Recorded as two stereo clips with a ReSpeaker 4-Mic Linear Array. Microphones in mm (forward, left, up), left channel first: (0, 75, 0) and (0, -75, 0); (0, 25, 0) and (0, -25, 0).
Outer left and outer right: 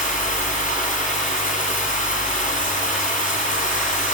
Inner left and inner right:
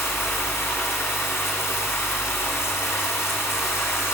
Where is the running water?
60° left (ahead or behind), 4.5 m.